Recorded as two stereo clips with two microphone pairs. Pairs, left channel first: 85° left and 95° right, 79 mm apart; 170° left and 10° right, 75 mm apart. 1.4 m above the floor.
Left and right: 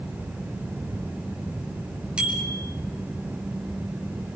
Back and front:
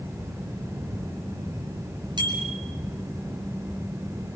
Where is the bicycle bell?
15° right, 4.5 m.